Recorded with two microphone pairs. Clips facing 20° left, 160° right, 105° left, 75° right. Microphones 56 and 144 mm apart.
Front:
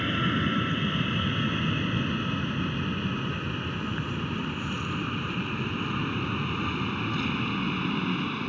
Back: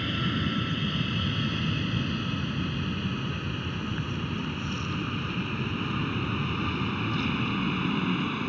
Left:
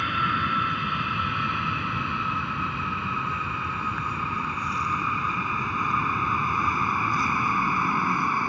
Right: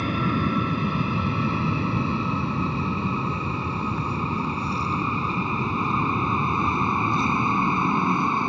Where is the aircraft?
40° right; by 8.5 s 75° right.